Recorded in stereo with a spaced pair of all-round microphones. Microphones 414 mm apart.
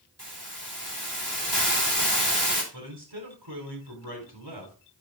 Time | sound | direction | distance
0.2 | a hiss | 25° right (ahead or behind) | 3 m
2.7 | a man speaking | 75° right (ahead or behind) | 4 m